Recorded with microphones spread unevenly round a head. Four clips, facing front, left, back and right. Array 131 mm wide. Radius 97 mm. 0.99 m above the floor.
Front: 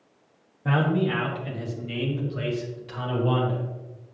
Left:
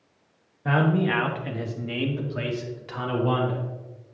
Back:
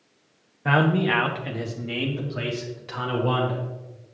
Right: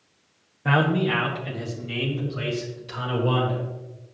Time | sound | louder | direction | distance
0.7 | a man speaking | right 1 dB, back 3 dB | 120° right | 0.7 m